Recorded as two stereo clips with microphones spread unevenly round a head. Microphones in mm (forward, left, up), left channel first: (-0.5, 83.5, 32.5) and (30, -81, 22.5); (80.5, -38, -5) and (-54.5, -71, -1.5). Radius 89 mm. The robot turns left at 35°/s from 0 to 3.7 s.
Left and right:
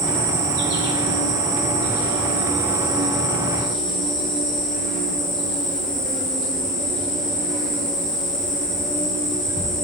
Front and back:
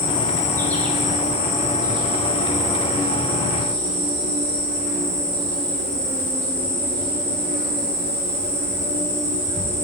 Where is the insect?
40° right, 1.3 m; by 9.8 s 170° right, 1.3 m.